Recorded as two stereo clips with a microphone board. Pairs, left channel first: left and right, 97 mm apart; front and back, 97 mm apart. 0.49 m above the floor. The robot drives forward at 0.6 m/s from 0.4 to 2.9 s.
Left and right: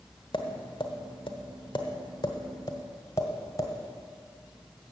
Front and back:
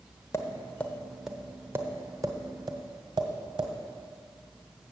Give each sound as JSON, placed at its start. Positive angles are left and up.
{"t": 0.3, "sound": "tapping", "azimuth_deg": 60, "distance_m": 0.9}